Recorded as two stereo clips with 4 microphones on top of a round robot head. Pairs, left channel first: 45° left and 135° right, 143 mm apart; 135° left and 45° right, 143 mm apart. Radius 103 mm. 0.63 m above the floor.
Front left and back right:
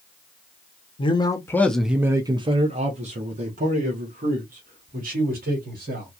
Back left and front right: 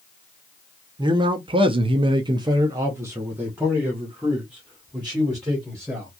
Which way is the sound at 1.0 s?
5° left.